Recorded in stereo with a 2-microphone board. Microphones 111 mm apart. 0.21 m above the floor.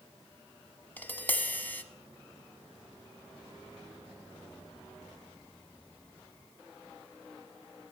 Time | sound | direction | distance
1.0 | tapping | 15° left (ahead or behind) | 0.9 m